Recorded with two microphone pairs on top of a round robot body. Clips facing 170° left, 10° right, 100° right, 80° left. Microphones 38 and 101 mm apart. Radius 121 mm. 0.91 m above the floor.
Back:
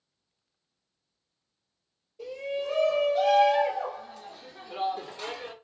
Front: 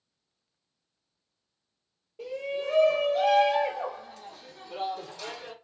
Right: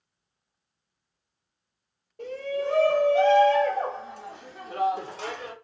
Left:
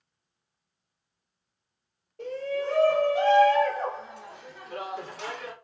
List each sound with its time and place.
2.2 s a shout: 25° right, 1.5 m; by 5.5 s 145° right, 1.3 m